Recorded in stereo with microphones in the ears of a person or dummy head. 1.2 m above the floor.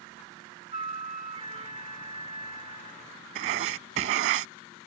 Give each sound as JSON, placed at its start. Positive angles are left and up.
{"t": 0.7, "sound": "a flute", "side_deg": -25}
{"t": 3.4, "sound": "writing", "side_deg": -45}